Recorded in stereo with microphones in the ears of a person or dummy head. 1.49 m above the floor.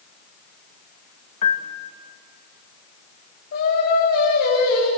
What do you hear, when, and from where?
1.4 s a piano: 45° left (ahead or behind), 1.7 m
3.5 s singing: 65° left (ahead or behind), 6.5 m